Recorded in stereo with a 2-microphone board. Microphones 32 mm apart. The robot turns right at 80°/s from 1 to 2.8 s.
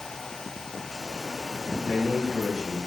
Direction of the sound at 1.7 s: 20° right (ahead or behind).